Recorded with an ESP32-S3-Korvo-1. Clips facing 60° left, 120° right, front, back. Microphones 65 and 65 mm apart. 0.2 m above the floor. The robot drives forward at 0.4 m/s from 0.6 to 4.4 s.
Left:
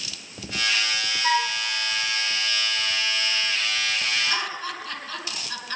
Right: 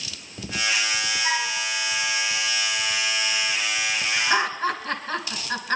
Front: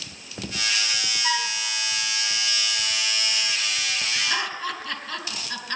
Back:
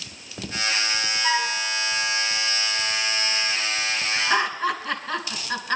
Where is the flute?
105° left, 2 m; by 1.6 s 110° left, 2 m.